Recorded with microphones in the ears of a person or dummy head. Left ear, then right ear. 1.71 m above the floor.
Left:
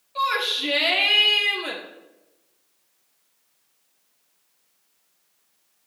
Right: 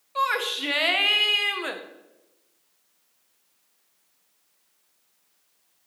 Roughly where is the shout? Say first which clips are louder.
Left 2 dB; right.